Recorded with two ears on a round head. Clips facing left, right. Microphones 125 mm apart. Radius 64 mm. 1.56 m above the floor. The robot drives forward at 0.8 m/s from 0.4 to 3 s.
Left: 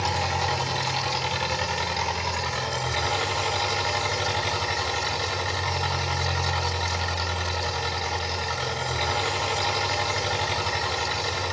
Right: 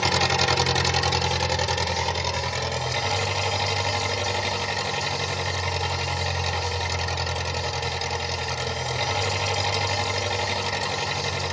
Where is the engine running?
85° right, 1.0 m; by 11.5 s 25° right (ahead or behind), 2.5 m.